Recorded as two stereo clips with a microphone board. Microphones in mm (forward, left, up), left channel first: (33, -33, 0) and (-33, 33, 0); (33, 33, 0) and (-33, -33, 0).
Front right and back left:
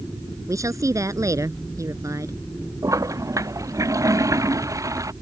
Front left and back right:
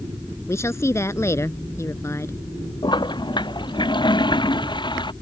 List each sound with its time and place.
0.5 s a woman speaking: 95° left
2.8 s a toilet flushing: 80° left